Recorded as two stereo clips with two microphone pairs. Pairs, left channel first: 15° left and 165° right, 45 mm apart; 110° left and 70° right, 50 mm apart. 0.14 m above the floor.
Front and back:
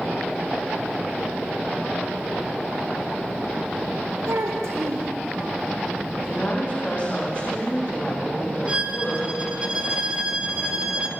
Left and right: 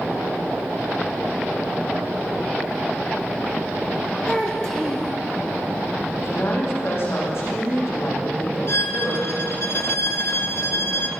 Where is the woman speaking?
75° left, 8 m.